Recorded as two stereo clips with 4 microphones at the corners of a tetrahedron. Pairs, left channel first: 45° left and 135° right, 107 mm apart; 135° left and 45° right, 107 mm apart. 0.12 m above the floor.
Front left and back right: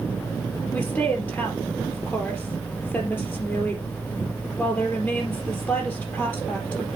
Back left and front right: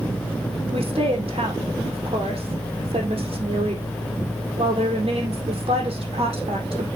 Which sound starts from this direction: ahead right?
A woman speaking, at 0.7 s.